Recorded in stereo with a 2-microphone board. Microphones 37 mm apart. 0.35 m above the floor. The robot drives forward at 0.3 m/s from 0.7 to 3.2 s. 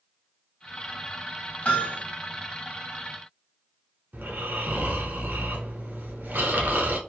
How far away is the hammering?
About 1.0 m.